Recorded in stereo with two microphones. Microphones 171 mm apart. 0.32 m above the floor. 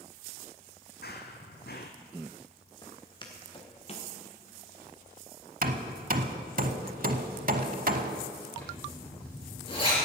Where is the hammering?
55° right (ahead or behind), 0.8 m.